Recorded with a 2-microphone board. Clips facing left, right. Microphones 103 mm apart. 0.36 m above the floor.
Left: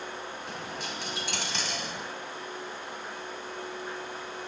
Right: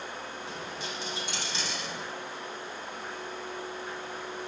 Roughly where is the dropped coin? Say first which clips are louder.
Left 1 dB; left.